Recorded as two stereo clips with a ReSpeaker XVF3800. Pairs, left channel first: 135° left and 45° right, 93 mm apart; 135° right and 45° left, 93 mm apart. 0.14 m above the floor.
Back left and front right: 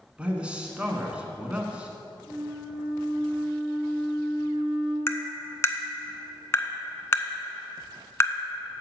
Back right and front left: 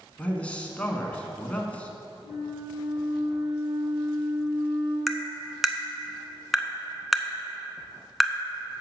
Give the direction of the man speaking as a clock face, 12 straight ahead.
3 o'clock.